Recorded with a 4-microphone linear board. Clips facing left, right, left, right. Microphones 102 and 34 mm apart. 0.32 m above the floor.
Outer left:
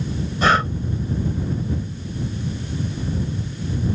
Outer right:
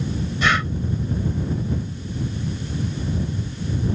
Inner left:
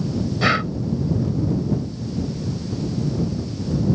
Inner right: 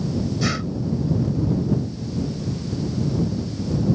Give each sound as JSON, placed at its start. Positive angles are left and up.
{"t": 0.4, "sound": "breathing", "side_deg": 40}